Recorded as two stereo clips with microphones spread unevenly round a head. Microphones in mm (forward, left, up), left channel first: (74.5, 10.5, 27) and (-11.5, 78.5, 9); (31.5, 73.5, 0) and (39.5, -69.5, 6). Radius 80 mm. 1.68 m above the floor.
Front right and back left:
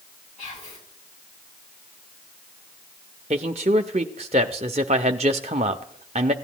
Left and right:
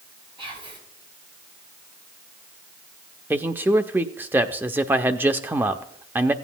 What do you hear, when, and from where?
0.4 s whispering: 30° right, 7.5 m
3.3 s a man speaking: 165° right, 0.5 m